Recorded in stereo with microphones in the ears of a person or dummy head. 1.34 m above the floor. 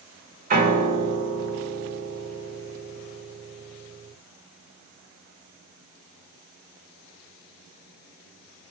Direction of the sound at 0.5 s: 50° right (ahead or behind).